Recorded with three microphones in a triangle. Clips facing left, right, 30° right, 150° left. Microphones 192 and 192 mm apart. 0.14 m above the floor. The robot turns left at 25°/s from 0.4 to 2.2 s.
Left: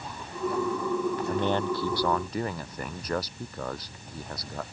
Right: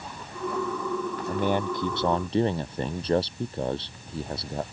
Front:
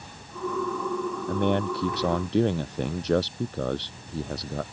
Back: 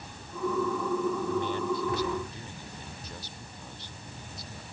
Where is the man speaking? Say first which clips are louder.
Right 4 dB, front 4 dB; 5° right; by 4.6 s 30° right.